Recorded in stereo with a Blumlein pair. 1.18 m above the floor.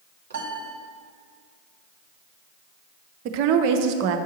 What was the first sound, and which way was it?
A piano, 60° right.